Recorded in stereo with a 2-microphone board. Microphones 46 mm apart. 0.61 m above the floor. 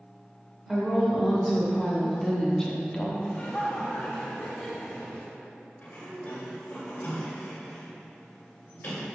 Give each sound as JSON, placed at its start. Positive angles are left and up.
{"t": 0.7, "sound": "a woman speaking", "side_deg": -5, "distance_m": 1.9}
{"t": 3.2, "sound": "laughter", "side_deg": 25, "distance_m": 1.2}
{"t": 5.8, "sound": "a sliding door", "side_deg": 45, "distance_m": 1.6}